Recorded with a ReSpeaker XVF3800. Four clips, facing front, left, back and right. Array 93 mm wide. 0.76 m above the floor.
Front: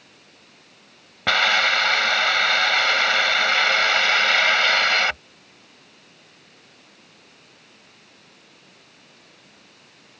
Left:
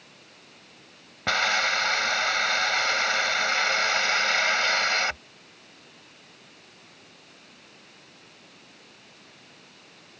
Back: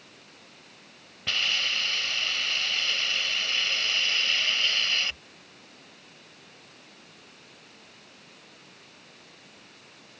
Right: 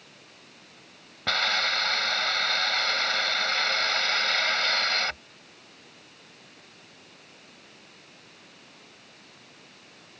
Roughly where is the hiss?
Ahead.